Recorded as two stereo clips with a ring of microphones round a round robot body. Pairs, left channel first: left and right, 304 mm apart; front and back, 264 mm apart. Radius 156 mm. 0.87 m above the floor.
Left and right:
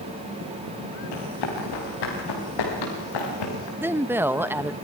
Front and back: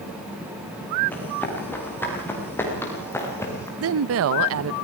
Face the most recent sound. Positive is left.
turn(degrees=-170)